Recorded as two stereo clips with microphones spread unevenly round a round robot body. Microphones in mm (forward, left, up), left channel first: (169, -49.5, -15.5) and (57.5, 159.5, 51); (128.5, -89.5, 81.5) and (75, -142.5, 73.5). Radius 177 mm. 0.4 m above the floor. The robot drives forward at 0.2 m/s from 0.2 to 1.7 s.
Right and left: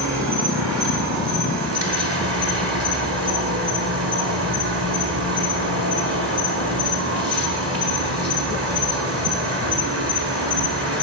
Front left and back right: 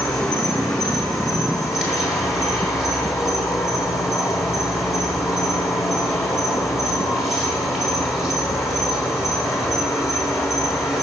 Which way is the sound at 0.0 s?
135° left.